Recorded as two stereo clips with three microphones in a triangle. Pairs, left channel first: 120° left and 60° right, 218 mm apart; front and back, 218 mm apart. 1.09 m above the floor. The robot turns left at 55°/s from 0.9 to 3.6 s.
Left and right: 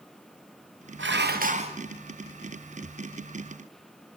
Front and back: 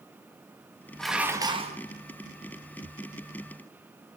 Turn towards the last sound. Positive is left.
turn(degrees=130)